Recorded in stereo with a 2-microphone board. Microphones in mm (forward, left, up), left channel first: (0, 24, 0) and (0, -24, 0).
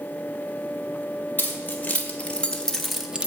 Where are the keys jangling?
40° left (ahead or behind), 2.5 m; by 3.3 s 25° right (ahead or behind), 0.9 m.